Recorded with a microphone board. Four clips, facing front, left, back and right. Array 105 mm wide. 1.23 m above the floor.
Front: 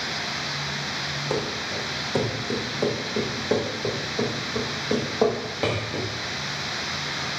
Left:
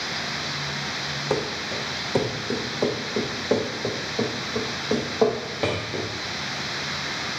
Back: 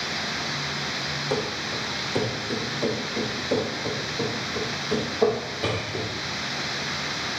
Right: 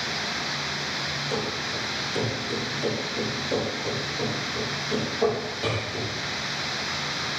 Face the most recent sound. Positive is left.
turn(degrees=45)